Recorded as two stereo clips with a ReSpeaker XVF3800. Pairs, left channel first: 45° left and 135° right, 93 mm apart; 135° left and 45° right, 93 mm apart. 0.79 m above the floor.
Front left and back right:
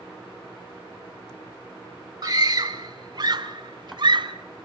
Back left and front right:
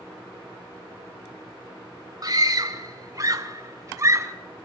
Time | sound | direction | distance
2.2 | a scream | 90° right | 1.9 m